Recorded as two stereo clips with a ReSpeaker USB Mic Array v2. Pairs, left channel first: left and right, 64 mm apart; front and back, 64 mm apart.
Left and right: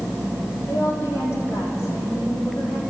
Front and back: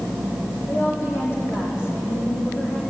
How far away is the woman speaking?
About 6.5 m.